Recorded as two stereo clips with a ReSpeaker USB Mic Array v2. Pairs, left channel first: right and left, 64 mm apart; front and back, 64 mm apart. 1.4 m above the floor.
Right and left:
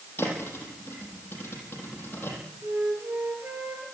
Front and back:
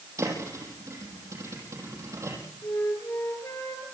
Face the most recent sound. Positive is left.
turn(degrees=40)